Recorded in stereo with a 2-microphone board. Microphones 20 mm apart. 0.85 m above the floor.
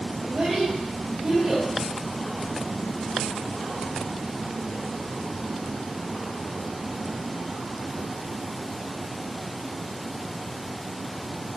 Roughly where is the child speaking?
Right.